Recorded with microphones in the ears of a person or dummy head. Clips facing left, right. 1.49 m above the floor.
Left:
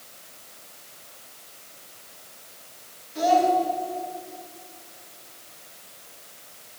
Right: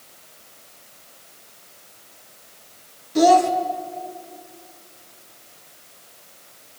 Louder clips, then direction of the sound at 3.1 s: Right 6 dB; 75° right (ahead or behind).